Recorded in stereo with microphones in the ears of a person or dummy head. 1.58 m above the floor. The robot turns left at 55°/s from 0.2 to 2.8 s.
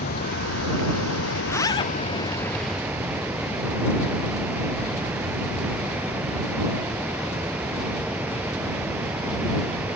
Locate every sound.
0.0 s running water: 135° left; by 10.0 s 10° right
1.4 s a zipper: 10° left (ahead or behind); by 1.9 s 30° left (ahead or behind)